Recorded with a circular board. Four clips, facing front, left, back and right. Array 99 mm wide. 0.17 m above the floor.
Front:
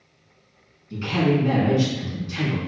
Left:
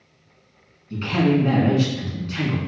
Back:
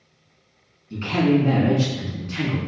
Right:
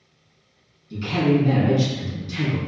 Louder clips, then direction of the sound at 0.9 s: Left 1 dB, back 2 dB; 115° left.